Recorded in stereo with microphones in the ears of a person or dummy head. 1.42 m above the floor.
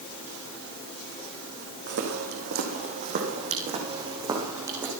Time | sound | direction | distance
1.9 | footsteps | 60° right (ahead or behind) | 5 m